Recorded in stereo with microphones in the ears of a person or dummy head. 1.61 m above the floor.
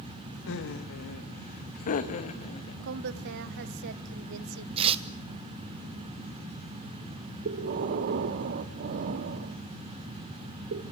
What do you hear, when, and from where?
0.5 s laughter: 70° left (ahead or behind), 2 m; by 2.7 s 40° left (ahead or behind), 2.5 m
2.8 s a woman speaking: 60° right (ahead or behind), 1.3 m
4.8 s tearing paper: 35° right (ahead or behind), 1.3 m
7.5 s breathing: 45° right (ahead or behind), 1.1 m